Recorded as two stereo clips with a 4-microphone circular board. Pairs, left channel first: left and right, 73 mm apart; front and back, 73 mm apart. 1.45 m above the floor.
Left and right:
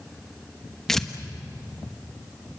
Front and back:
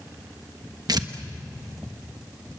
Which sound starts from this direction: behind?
Tearing paper, at 0.9 s.